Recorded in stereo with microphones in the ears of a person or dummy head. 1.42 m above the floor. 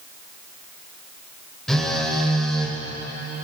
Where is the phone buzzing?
5° left (ahead or behind), 4 m.